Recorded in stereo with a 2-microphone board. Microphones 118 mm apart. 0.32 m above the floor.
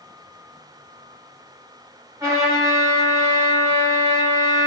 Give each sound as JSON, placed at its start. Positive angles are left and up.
{"t": 2.2, "sound": "a trumpet", "side_deg": -30, "distance_m": 1.5}